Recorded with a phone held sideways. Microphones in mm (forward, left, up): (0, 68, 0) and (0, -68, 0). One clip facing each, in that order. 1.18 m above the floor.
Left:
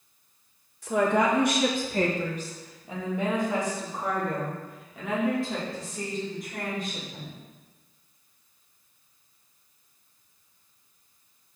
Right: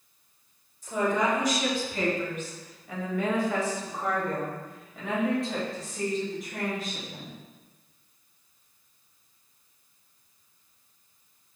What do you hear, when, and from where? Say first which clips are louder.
0.8 s a woman speaking: left 3 dB; 75° left (ahead or behind), 1.6 m; by 7.3 s 5° right (ahead or behind), 5.5 m